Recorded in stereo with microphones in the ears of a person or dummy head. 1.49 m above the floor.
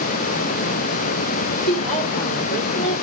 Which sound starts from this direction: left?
A woman speaking, at 1.7 s.